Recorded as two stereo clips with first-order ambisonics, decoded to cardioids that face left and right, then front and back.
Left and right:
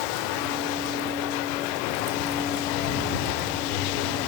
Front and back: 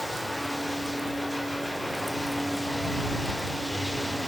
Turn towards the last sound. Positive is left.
turn(degrees=90)